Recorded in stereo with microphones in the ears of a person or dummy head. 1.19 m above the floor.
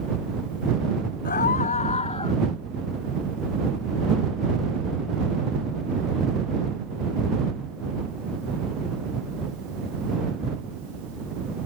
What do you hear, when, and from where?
1.2 s a scream: 45° left (ahead or behind); by 2.4 s 25° left (ahead or behind)